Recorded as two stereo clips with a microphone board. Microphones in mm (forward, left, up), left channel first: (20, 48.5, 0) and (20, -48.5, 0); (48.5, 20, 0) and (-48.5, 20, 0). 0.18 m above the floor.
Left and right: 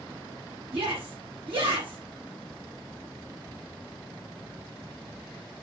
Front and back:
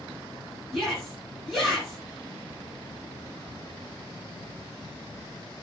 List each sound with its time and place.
0.7 s a shout: 90° right, 4 m